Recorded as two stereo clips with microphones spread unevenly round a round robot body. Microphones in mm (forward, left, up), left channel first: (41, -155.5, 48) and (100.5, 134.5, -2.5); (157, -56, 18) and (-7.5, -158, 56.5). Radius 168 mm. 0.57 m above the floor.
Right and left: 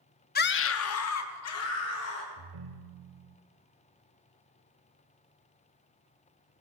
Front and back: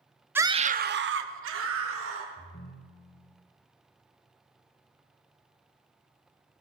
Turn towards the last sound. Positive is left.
turn(degrees=85)